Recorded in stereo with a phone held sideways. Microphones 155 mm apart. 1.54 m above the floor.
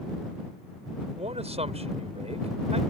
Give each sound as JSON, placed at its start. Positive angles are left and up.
{"t": 1.2, "sound": "a man speaking", "side_deg": -45}